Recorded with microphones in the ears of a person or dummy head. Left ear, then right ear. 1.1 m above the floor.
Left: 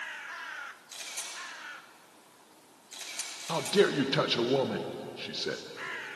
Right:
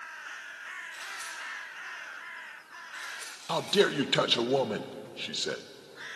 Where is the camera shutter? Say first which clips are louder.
Right 2 dB; 65° left (ahead or behind), 9.5 m.